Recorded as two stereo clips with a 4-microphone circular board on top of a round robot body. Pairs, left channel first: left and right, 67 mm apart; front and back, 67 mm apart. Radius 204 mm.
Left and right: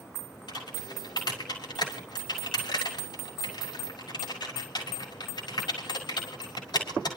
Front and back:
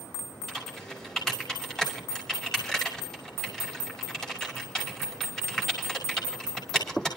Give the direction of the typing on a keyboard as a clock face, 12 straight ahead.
9 o'clock.